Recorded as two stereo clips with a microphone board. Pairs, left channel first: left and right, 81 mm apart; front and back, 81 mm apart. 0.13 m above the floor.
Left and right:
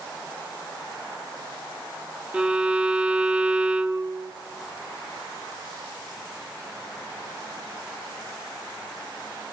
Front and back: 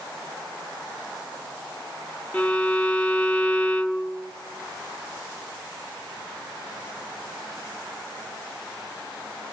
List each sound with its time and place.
2.3 s a violin: 35° right, 1.1 m